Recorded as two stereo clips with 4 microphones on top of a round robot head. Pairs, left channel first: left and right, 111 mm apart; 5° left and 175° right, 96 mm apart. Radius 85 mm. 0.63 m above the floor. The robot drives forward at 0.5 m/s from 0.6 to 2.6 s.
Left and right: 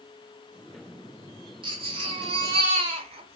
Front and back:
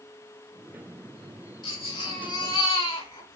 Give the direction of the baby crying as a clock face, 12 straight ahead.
2 o'clock.